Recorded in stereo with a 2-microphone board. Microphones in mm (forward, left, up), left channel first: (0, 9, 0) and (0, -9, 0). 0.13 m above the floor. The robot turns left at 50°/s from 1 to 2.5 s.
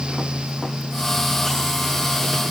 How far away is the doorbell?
I don't hear a doorbell.